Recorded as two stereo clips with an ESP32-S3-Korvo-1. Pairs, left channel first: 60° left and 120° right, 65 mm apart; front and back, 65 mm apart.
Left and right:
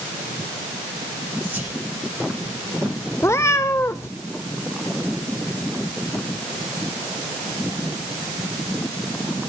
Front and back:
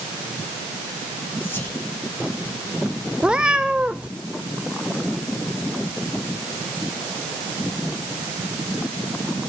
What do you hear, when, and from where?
1.4 s whispering: 55° right, 6.5 m
3.2 s a cat meowing: 105° left, 1.0 m